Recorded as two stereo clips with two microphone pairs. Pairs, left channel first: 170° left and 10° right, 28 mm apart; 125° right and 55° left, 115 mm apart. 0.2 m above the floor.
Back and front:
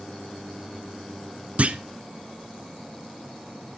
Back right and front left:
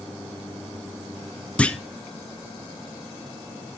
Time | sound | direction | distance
1.6 | a clunk | 45° right | 0.6 m